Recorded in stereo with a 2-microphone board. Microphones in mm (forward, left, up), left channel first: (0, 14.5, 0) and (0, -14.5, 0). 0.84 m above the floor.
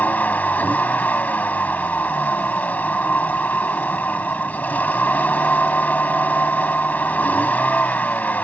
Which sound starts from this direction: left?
A vehicle, at 0.0 s.